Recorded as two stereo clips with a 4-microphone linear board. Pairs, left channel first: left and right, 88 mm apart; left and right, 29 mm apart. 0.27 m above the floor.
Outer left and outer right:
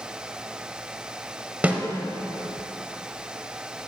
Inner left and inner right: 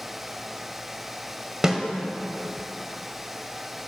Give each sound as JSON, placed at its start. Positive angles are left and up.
{"t": 1.6, "sound": "a snare drum", "side_deg": -15, "distance_m": 0.9}